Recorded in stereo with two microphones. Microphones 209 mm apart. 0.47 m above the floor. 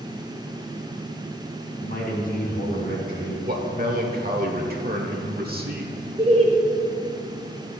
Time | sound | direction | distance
1.8 | a man speaking | 45° left (ahead or behind) | 3 m
3.5 | a man speaking | 45° right (ahead or behind) | 1.4 m
6.2 | laughter | 30° right (ahead or behind) | 1.5 m